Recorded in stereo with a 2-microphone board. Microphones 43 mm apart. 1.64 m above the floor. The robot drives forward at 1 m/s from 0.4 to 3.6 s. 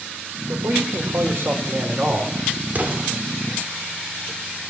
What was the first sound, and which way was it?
A man speaking, 75° right (ahead or behind).